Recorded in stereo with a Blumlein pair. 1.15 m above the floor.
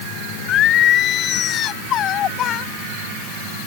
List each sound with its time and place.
0.5 s singing: 30° left